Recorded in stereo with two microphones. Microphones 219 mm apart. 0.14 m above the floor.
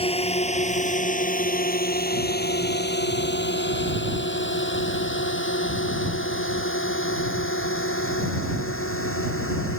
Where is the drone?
25° left (ahead or behind); by 9.8 s 75° left (ahead or behind).